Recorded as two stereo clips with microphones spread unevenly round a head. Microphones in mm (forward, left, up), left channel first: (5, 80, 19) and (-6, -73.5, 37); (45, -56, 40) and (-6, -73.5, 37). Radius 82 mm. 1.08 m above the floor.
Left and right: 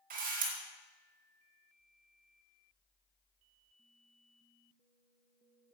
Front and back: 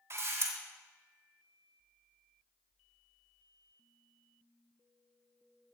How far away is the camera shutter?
About 3 m.